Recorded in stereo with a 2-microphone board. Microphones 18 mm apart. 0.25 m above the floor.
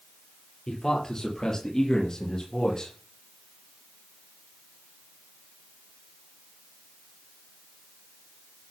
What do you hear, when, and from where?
0.7 s a man speaking: 30° left (ahead or behind), 6 m; by 2.9 s 45° left (ahead or behind), 5.5 m